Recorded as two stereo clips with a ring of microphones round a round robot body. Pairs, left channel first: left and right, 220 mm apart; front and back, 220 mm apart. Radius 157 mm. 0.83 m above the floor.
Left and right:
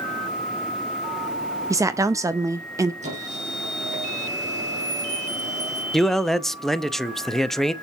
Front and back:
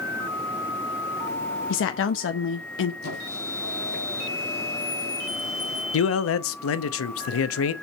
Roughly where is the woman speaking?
Ahead.